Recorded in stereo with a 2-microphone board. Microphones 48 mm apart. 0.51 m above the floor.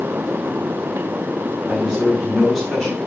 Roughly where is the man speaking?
Centre.